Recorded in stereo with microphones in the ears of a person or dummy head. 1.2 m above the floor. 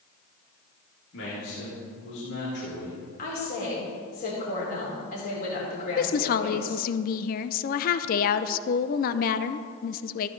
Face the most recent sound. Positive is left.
turn(degrees=50)  # may be behind; listen again after turning